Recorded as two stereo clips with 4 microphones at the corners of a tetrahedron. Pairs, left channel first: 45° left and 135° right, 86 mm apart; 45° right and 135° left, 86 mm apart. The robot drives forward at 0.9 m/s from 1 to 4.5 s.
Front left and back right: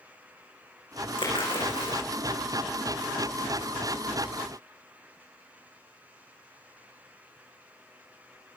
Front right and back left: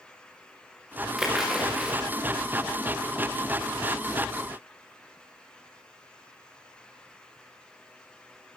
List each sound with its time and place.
1.2 s a splash: 50° left, 7.5 m; by 2.0 s 55° left, 7 m